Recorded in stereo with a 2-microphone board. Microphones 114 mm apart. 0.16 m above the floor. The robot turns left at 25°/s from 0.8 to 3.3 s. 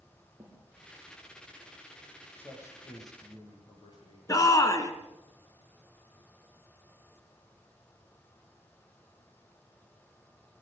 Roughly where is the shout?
Left.